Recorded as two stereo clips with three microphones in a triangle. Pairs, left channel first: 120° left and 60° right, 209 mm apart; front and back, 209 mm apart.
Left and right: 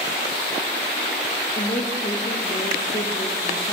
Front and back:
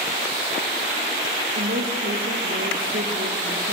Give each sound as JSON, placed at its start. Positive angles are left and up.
{"t": 1.6, "sound": "a woman speaking", "azimuth_deg": 170, "distance_m": 3.0}